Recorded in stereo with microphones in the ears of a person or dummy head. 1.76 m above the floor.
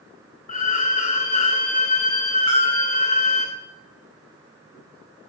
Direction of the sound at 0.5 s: 40° left (ahead or behind).